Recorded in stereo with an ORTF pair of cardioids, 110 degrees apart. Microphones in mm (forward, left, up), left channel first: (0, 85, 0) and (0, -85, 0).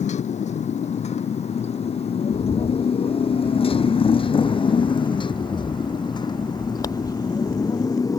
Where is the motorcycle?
45° left; by 8.2 s 20° left.